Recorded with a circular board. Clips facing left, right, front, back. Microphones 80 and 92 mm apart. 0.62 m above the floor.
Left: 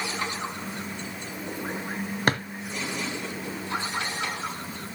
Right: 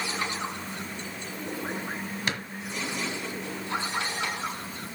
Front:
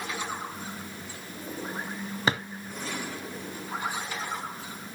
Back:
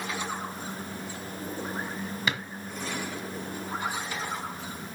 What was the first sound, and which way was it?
A drawer, 50° left.